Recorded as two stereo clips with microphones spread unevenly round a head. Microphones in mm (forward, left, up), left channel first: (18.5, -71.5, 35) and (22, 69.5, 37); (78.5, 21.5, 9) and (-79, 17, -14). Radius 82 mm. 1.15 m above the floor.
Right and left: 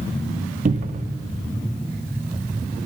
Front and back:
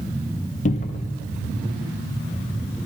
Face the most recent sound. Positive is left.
turn(degrees=50)